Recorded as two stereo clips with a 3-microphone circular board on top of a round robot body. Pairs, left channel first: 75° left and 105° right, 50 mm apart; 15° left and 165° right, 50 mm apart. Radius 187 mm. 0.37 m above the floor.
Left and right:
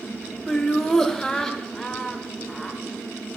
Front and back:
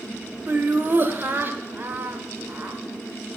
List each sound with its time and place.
0.5 s laughter: 155° left, 1.6 m